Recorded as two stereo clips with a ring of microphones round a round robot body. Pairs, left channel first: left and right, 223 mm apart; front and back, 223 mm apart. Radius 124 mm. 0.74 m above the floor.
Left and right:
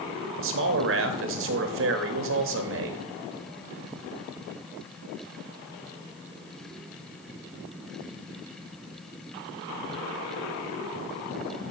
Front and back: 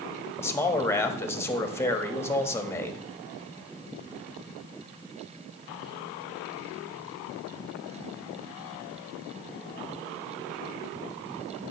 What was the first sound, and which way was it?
A man speaking, 80° right.